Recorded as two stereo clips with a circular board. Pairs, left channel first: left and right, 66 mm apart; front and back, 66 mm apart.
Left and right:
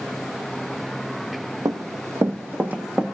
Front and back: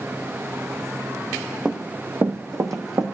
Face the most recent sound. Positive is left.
turn(degrees=-165)